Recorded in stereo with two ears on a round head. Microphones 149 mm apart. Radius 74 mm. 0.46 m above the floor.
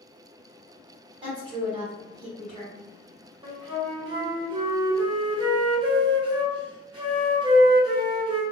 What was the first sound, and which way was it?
A woman speaking, 30° right (ahead or behind).